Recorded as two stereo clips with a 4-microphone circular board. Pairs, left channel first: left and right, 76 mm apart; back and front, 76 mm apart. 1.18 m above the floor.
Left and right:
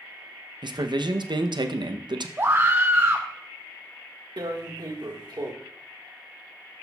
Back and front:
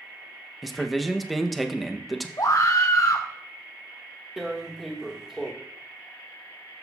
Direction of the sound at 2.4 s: 145° right.